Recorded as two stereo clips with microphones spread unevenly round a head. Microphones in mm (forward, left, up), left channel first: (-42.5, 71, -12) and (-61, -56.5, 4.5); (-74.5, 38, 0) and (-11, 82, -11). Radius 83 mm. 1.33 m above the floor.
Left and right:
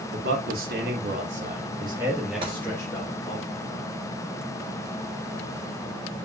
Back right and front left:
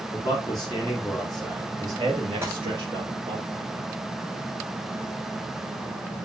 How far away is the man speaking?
About 2.5 m.